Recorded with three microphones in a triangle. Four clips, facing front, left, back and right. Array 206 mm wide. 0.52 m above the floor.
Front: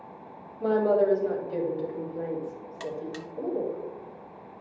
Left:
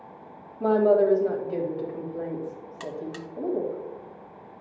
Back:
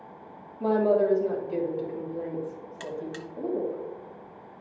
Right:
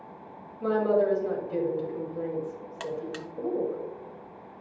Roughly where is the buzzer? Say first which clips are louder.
Even, front 1 dB; right.